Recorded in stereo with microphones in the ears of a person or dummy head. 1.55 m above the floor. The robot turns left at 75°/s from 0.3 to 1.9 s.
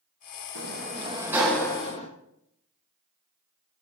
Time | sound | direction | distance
0.6 | a sliding door | 110° right | 1.2 m